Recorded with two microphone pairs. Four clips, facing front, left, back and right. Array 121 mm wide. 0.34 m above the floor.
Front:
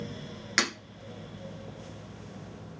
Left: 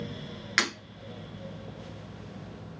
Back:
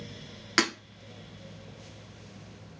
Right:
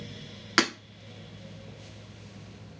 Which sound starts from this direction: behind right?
Breaking glass, at 0.6 s.